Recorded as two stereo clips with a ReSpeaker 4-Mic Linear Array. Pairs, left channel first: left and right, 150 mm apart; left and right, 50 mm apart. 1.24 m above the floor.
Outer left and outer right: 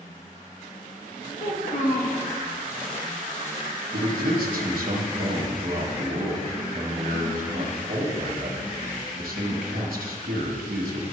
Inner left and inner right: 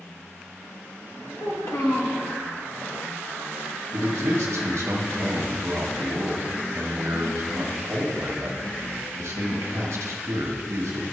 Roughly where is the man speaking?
Right.